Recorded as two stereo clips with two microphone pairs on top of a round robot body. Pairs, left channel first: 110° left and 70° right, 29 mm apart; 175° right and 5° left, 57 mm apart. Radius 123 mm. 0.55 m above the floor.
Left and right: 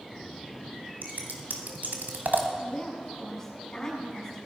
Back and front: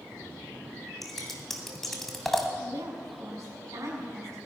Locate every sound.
1.0 s scissors: 90° right, 1.8 m
2.6 s a woman speaking: 35° left, 6.5 m